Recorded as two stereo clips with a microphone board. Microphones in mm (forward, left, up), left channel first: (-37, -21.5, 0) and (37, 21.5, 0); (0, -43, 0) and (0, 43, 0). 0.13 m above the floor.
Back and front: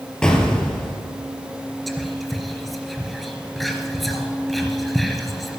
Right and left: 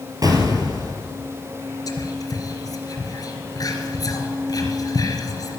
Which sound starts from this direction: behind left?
An explosion, at 0.2 s.